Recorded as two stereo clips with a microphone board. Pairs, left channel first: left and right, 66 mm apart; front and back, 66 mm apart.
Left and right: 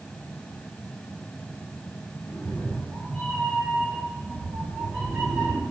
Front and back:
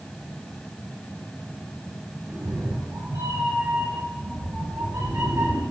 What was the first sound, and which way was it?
A cat meowing, 165° left.